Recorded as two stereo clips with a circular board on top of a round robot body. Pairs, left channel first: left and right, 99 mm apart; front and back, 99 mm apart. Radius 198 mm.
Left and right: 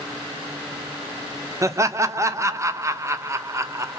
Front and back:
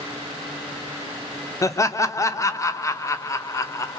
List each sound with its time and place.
1.6 s laughter: 45° right, 0.6 m